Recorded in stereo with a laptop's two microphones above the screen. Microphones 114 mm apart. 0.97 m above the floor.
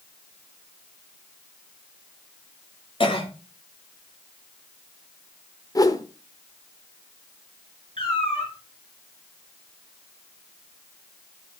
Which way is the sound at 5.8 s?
30° left (ahead or behind).